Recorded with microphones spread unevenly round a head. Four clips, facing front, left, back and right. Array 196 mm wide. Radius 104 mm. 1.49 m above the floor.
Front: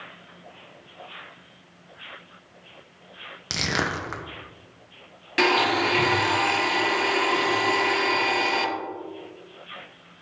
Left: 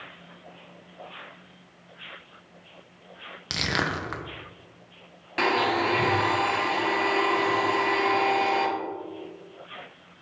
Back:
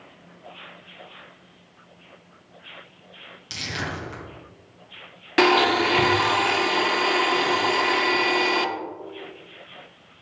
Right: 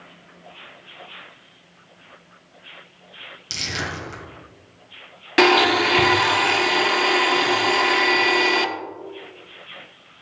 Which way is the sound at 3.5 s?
25° left.